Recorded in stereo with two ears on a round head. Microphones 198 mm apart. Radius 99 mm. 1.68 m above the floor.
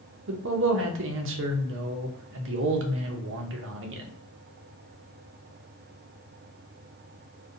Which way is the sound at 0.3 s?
60° right (ahead or behind).